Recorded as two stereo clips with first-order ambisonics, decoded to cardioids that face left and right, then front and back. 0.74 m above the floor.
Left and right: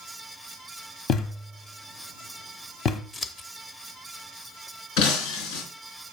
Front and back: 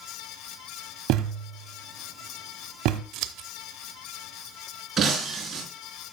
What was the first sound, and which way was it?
A thud, 145° left.